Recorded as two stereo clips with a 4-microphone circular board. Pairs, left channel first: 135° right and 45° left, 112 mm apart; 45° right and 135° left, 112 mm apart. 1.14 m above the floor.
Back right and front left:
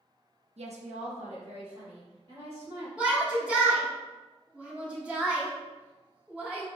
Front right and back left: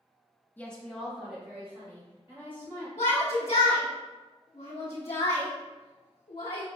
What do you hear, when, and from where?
0.6 s a woman speaking: 30° left, 0.8 m; by 2.9 s 65° left, 4 m
3.0 s a shout: 35° right, 1.1 m